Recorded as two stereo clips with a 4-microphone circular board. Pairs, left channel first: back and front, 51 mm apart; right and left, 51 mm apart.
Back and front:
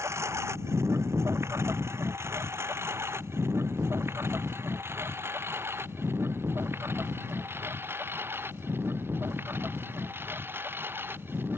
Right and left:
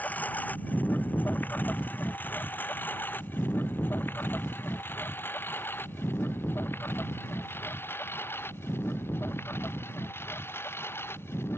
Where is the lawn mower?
30° right; by 11.6 s 50° right.